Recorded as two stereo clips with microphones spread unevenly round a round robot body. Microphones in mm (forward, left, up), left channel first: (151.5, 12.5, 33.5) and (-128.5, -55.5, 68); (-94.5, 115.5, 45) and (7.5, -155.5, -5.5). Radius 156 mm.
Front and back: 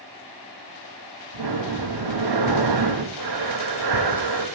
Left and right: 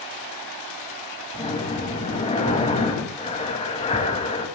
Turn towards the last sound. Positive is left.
turn(degrees=180)